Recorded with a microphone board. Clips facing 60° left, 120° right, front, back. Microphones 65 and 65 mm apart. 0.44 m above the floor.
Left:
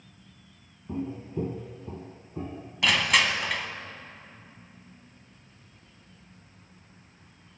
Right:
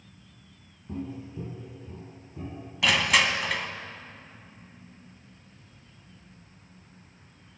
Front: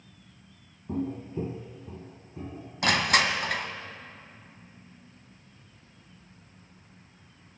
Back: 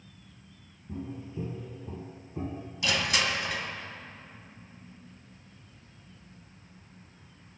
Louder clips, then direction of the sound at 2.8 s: Even, front 5 dB; 30° right.